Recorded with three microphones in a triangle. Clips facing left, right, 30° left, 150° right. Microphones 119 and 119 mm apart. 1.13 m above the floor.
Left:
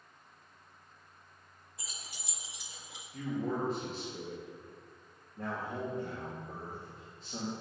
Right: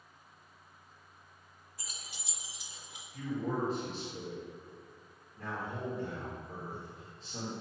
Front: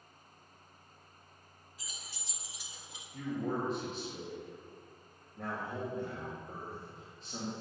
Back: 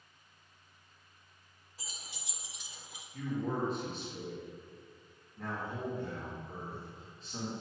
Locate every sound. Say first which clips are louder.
1.8 s keys jangling: left 1 dB, back 1 dB; 160° left, 1.0 m; by 3.0 s 95° left, 1.0 m
3.1 s a man speaking: even, even; 60° left, 2 m